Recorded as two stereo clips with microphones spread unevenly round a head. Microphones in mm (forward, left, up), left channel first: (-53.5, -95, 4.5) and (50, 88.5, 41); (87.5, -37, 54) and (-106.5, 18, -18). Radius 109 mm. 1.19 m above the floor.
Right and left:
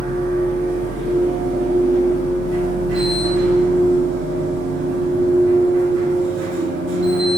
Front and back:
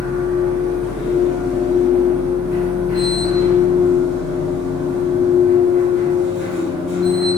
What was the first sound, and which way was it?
A machine running, 60° left.